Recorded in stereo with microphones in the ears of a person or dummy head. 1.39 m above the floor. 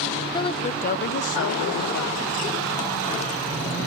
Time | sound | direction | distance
0.3 | a woman speaking | 25° left (ahead or behind) | 0.9 m